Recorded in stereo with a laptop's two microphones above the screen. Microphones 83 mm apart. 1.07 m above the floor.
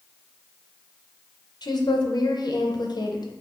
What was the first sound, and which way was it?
A woman speaking, 60° left (ahead or behind).